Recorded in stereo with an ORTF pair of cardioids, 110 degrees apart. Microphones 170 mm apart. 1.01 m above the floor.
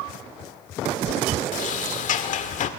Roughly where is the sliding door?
Ahead left.